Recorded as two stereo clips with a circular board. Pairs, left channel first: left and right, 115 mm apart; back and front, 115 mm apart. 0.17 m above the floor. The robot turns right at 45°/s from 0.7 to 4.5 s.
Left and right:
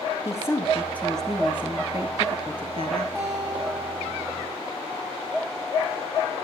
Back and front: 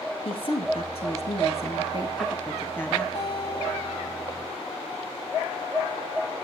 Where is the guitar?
155° right, 7 m; by 4.6 s 95° right, 7 m.